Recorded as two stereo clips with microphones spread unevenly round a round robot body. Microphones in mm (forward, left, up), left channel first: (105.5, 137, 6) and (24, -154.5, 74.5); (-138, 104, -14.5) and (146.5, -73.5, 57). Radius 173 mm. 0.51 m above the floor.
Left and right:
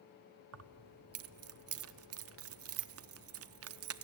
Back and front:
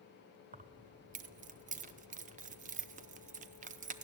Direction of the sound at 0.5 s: 105° right.